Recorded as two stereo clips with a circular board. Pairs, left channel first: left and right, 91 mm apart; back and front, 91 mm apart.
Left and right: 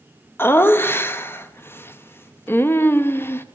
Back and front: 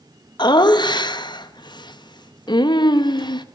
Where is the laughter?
155° left, 0.7 m.